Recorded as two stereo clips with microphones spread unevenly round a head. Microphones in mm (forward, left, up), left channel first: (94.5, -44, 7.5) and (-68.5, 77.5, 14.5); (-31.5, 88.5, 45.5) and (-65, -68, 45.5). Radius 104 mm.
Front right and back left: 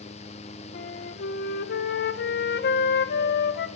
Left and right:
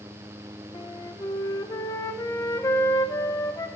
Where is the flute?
5° left, 0.6 m.